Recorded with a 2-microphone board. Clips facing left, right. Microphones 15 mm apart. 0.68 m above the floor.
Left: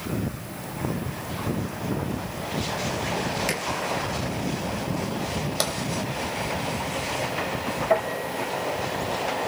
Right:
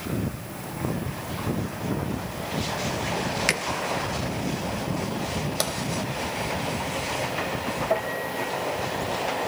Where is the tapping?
5° left (ahead or behind), 1.4 m.